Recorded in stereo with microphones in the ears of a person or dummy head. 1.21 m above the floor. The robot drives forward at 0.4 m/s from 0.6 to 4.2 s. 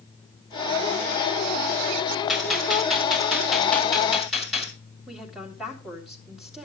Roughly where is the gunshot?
Centre.